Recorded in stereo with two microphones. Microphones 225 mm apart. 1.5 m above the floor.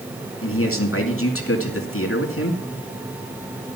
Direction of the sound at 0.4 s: 70° left (ahead or behind).